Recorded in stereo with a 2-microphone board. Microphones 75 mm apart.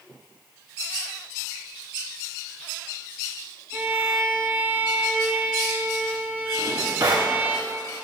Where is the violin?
20° right (ahead or behind), 2 m.